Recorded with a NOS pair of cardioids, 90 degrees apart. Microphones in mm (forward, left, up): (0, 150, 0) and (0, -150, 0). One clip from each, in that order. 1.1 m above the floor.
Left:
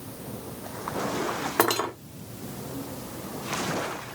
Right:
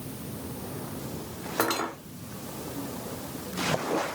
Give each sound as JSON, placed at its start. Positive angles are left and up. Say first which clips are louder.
{"t": 1.6, "sound": "cutlery clinking", "louder": "left 3 dB", "azimuth_deg": 40, "distance_m": 1.6}